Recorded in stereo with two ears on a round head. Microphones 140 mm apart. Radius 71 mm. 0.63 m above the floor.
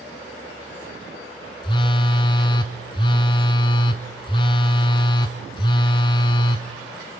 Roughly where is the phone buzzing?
Left.